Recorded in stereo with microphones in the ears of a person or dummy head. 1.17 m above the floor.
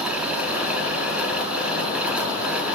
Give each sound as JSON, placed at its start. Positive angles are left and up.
{"t": 0.0, "sound": "a fan", "side_deg": -5, "distance_m": 0.9}